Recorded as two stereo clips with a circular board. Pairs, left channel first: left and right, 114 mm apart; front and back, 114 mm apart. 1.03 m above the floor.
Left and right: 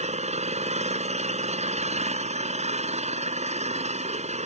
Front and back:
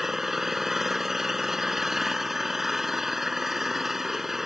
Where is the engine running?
95° right.